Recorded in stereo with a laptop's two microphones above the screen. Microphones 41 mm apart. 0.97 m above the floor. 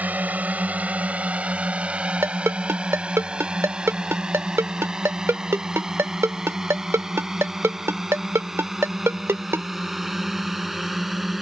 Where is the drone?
35° right (ahead or behind); by 11.4 s 5° right (ahead or behind).